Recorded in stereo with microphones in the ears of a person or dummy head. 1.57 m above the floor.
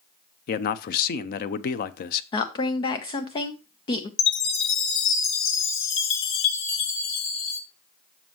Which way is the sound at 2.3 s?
35° left (ahead or behind).